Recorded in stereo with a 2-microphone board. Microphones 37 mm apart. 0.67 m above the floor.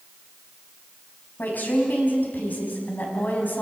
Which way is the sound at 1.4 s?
55° left (ahead or behind).